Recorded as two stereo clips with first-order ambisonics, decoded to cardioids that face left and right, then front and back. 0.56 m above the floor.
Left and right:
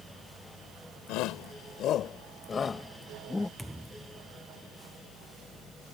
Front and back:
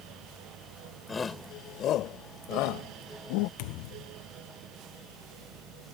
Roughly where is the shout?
Left.